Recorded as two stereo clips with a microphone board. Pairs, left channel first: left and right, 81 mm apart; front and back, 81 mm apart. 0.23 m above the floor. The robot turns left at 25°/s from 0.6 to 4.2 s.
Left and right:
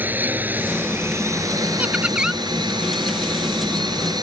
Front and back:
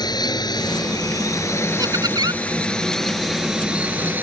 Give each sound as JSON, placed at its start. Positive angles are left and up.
{"t": 0.0, "sound": "a drone", "azimuth_deg": -25}
{"t": 1.8, "sound": "laughter", "azimuth_deg": -160}